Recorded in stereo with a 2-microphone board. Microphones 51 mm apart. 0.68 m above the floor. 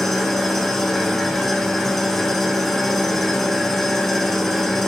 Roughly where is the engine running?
Centre.